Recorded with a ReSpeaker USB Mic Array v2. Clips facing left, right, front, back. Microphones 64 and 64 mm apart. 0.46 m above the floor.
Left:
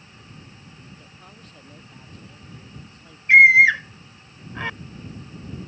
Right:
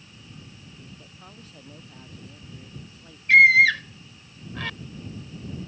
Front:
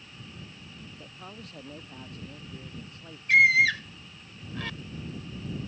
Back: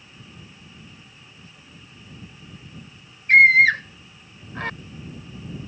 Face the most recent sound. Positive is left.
turn(degrees=150)